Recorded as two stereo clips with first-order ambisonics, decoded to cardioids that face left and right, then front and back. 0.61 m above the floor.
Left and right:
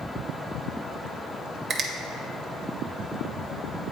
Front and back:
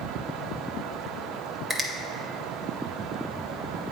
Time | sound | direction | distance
1.7 | a finger snap | 110° right | 0.7 m